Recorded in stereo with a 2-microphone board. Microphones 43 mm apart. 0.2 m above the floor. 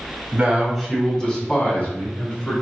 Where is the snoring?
I don't hear snoring.